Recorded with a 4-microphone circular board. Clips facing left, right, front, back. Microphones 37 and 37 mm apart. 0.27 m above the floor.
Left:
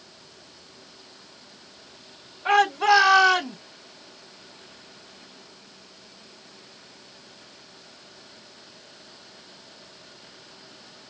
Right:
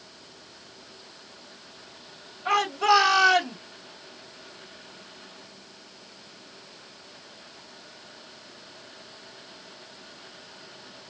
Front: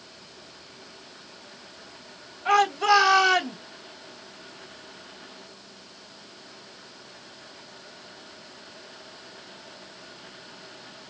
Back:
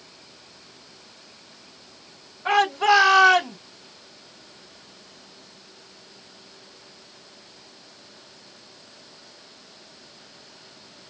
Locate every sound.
2.5 s a shout: 125° left, 1.3 m; by 3.6 s 175° left, 1.4 m